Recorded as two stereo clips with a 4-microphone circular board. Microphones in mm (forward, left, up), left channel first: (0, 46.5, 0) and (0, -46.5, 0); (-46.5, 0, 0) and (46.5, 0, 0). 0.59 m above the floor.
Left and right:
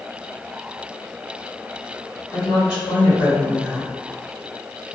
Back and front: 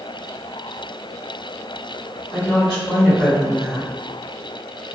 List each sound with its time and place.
2.3 s a woman speaking: 135° left, 1.6 m; by 5.0 s 65° left, 0.9 m